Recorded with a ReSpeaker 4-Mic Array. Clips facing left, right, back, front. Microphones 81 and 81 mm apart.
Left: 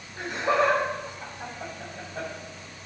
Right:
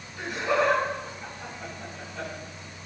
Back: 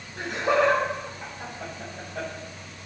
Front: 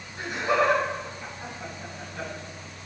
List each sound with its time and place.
0.2 s laughter: 150° left, 6 m